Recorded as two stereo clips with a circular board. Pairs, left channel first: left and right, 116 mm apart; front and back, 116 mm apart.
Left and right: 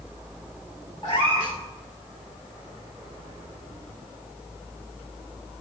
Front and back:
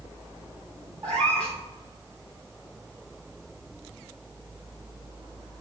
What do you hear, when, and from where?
1.0 s a cat meowing: 145° left, 3.5 m